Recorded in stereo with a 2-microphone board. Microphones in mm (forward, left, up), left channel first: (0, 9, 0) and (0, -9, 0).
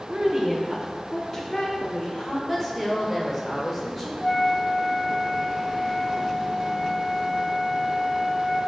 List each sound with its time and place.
0.1 s a woman speaking: 40° right (ahead or behind), 1.3 m; by 2.4 s 50° left (ahead or behind), 1.8 m
2.5 s a woman speaking: 5° right (ahead or behind), 1.0 m
4.2 s a flute: 15° left (ahead or behind), 0.7 m